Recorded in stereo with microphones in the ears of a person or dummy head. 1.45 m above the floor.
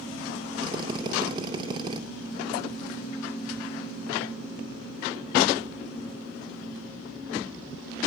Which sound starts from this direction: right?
A drill, at 0.6 s.